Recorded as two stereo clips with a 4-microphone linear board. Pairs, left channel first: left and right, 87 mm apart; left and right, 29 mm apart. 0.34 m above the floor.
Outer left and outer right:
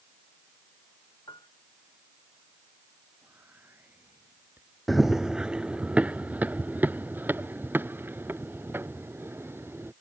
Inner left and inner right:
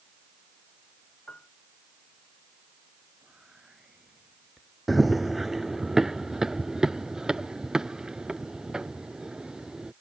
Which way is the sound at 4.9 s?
Centre (ahead or behind).